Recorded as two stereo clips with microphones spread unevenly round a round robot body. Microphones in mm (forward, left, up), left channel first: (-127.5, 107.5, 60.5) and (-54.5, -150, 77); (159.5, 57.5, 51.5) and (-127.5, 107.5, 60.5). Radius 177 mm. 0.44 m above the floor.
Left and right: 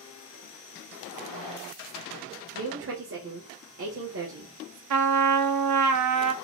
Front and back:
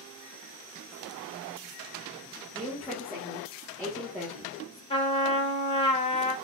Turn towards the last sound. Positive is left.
turn(degrees=-80)